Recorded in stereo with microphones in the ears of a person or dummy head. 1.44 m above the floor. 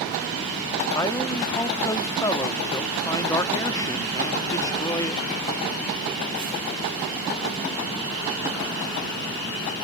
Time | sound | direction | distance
0.9 | a man speaking | 15° left (ahead or behind) | ?